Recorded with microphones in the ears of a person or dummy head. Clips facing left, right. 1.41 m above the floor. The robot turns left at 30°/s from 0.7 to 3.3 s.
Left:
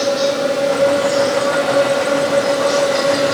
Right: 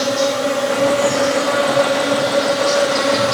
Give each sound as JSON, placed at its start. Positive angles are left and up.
{"t": 0.0, "sound": "an insect", "azimuth_deg": -110, "distance_m": 8.5}